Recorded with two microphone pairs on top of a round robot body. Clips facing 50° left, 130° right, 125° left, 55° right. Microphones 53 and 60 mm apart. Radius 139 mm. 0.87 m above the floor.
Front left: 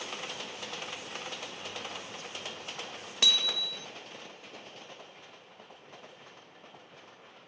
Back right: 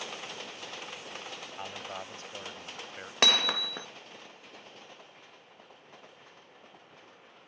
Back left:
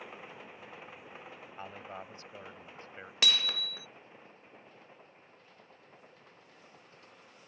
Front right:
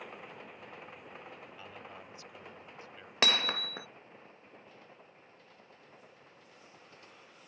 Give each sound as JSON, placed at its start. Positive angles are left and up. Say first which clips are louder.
{"t": 1.6, "sound": "a man speaking", "louder": "back right 1 dB, back left 4 dB", "azimuth_deg": 180}
{"t": 3.2, "sound": "hammering", "louder": "back right 4 dB, front right 3 dB", "azimuth_deg": -100}